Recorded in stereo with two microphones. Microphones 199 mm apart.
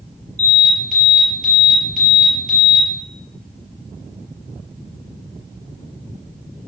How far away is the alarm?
About 5.5 m.